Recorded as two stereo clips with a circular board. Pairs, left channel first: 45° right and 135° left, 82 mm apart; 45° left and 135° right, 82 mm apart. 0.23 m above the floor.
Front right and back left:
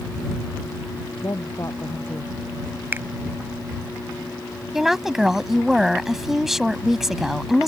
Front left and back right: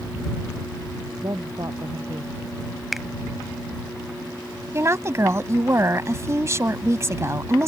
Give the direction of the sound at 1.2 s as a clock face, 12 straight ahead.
3 o'clock.